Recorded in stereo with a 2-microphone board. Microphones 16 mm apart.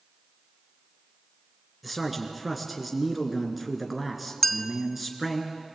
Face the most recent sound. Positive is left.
turn(degrees=15)  # may be behind; listen again after turning